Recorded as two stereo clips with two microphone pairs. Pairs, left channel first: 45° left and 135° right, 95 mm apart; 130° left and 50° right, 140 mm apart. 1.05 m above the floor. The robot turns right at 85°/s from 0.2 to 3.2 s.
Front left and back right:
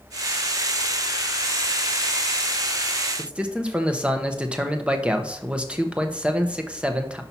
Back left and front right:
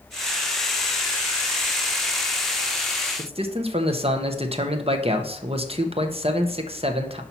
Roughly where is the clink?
I don't hear a clink.